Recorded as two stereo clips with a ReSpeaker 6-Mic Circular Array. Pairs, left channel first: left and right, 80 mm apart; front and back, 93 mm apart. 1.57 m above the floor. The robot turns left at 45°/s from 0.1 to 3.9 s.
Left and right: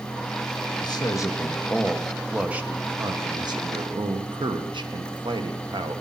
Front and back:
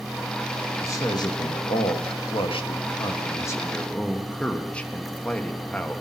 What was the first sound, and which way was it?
A man speaking, 60° left.